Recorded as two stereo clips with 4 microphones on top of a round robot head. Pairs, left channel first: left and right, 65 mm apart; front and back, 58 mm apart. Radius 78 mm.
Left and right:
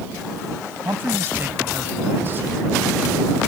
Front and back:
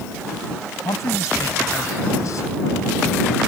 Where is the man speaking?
30° right.